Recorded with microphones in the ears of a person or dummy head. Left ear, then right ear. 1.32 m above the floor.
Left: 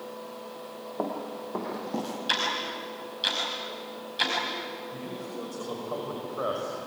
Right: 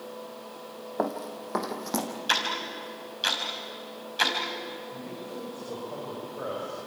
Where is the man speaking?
80° left, 5.5 m.